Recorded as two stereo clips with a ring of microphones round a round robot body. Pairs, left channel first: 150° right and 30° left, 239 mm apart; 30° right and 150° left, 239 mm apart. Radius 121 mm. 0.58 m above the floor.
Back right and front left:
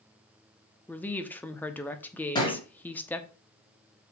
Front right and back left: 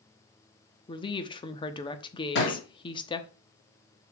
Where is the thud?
75° right, 3 m.